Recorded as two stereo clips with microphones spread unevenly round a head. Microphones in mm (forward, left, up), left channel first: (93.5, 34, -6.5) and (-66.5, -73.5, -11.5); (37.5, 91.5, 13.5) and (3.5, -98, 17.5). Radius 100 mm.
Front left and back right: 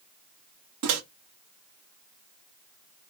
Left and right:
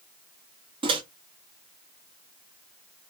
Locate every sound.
0.8 s a microwave: 165° right, 0.7 m